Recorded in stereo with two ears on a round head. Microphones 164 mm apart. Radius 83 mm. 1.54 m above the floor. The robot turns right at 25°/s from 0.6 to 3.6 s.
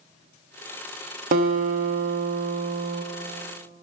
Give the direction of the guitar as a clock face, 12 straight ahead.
4 o'clock.